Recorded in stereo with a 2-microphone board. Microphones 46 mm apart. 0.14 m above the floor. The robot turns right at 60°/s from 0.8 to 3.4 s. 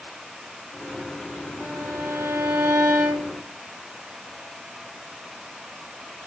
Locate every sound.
1.6 s a violin: 140° right, 1.8 m; by 3.5 s 30° right, 1.8 m